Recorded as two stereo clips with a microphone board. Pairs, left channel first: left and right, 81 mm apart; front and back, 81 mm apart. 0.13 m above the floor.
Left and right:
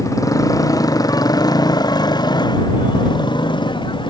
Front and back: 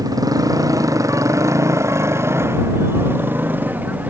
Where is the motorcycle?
140° left; by 4.1 s 110° left.